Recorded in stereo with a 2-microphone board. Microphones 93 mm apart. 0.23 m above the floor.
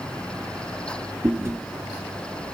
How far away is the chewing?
About 1.9 m.